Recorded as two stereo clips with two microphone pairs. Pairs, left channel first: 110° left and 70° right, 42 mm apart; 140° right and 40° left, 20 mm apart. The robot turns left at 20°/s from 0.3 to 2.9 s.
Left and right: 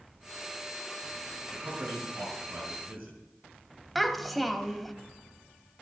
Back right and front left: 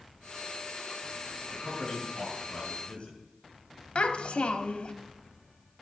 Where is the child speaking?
160° right, 1.2 m.